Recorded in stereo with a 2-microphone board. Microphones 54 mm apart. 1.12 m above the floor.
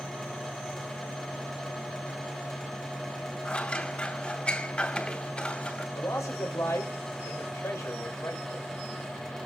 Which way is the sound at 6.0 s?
75° left (ahead or behind).